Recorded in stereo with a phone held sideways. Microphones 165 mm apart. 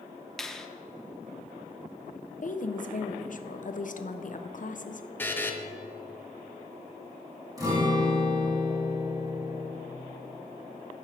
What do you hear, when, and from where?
0.4 s a finger snap: 5° left (ahead or behind), 0.8 m
2.4 s a woman speaking: 55° left (ahead or behind), 0.7 m
5.2 s a buzzer: 15° left (ahead or behind), 1.0 m
7.6 s a guitar: 25° right (ahead or behind), 2.5 m